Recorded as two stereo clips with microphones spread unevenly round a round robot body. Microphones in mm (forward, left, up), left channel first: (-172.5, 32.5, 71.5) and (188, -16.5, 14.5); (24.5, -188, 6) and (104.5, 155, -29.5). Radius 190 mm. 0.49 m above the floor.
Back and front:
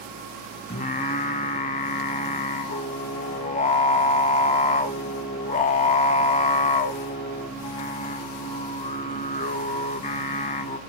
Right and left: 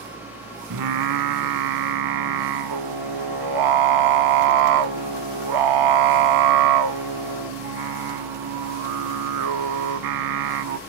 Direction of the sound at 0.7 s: 110° left.